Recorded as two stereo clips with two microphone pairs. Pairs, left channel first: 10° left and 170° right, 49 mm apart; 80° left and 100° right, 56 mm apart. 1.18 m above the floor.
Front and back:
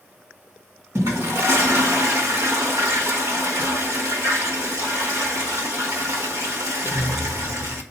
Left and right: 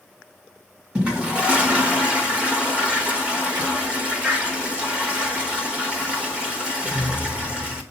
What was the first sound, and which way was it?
A toilet flushing, 170° right.